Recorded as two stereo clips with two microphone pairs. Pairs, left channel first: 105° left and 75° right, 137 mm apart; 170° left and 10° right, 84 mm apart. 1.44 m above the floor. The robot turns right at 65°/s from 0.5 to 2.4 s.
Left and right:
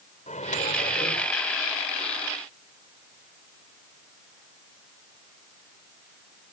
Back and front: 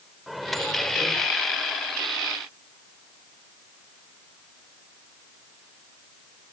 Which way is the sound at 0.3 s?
80° left.